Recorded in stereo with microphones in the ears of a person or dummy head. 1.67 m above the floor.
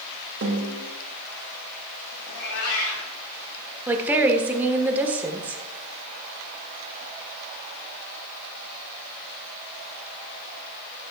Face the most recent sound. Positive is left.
turn(degrees=-10)  # may be behind; listen again after turning